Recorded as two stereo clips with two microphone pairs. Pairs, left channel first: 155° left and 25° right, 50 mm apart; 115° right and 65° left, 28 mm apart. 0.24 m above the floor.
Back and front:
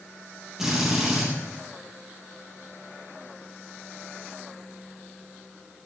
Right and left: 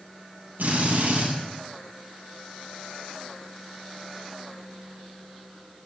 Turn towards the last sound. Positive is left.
turn(degrees=55)